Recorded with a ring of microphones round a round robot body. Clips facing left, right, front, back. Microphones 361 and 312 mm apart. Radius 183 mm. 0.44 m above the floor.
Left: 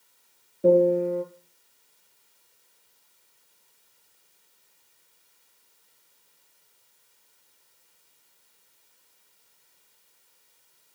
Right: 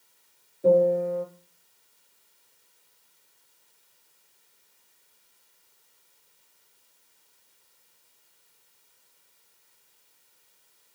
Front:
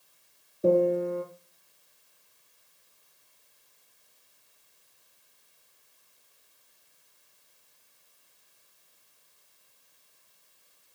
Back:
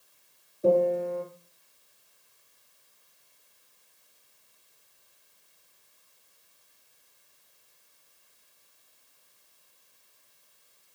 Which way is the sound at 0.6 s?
70° left.